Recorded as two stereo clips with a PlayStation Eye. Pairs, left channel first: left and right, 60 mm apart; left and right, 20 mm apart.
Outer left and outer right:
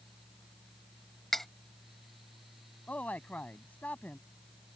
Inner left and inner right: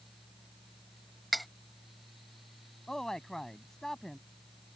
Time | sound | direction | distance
1.3 | cutlery clinking | 5° left (ahead or behind) | ?
2.9 | a man speaking | 25° left (ahead or behind) | ?